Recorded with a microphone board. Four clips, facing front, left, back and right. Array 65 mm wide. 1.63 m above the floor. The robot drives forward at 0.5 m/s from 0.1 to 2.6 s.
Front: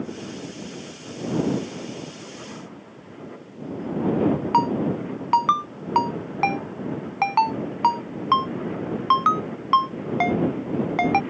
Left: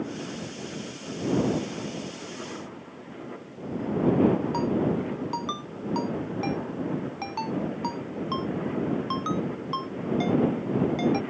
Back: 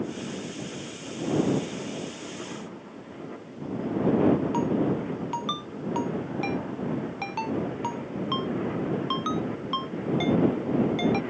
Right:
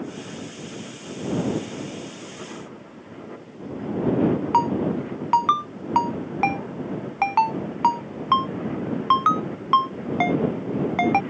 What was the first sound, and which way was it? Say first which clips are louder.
A ringtone: right 4 dB, front 4 dB; 45° right.